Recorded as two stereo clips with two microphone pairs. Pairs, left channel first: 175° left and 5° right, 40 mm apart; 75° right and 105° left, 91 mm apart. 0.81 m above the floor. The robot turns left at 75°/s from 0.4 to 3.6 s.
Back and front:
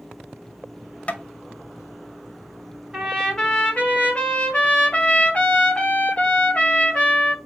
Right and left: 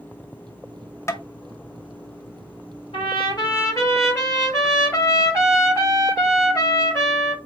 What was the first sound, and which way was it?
Tapping, 135° right.